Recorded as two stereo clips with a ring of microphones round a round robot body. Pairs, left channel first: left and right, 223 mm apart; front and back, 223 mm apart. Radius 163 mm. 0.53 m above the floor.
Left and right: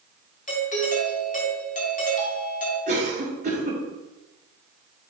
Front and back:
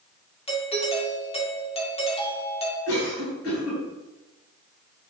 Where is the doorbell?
55° left, 2.5 m.